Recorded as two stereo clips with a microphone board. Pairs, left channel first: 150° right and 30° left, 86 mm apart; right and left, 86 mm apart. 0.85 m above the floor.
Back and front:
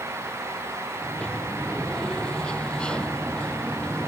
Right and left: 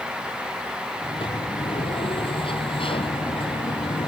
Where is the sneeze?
I don't hear a sneeze.